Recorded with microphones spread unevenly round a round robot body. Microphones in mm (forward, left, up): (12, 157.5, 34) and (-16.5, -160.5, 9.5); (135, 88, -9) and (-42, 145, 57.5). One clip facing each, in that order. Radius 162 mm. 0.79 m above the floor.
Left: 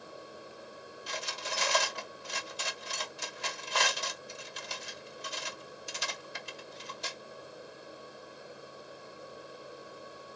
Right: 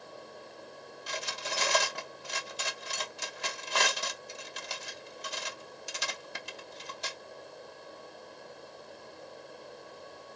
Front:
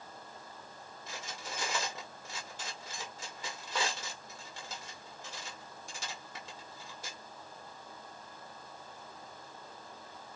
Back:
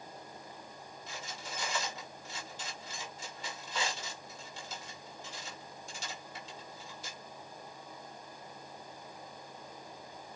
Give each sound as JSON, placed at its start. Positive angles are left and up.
{"t": 1.1, "sound": "cutlery clinking", "azimuth_deg": -70, "distance_m": 0.8}